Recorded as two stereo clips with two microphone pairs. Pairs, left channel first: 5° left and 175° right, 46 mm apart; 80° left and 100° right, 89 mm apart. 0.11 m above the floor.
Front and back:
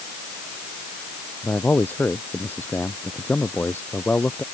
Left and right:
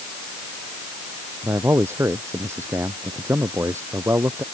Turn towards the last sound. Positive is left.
turn(degrees=-40)